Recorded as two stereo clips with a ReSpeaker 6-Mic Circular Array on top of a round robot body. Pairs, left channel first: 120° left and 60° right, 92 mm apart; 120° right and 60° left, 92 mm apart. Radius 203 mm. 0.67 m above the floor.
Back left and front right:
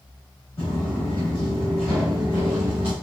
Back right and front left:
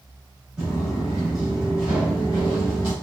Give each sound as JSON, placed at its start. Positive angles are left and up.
{"t": 0.6, "sound": "footsteps", "azimuth_deg": 135, "distance_m": 0.8}